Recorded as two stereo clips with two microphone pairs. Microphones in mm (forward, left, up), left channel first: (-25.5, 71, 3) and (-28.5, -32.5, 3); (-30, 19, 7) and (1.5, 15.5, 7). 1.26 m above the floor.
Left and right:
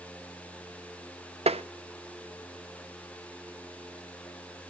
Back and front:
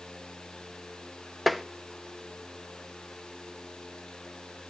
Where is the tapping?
95° right, 0.6 m.